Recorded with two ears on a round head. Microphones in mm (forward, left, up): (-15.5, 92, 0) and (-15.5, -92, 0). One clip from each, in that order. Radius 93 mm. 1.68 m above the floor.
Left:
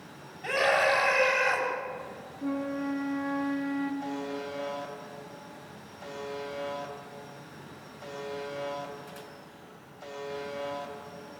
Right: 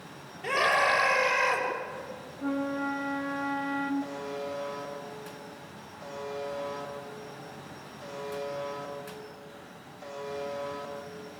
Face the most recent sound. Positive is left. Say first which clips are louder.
# even
turn(degrees=-10)  # may be behind; listen again after turning